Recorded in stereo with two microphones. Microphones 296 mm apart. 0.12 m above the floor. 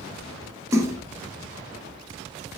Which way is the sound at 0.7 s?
10° right (ahead or behind).